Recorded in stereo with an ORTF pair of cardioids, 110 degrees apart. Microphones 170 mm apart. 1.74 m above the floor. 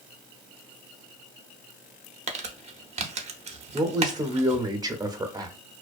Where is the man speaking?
25° right, 0.7 m.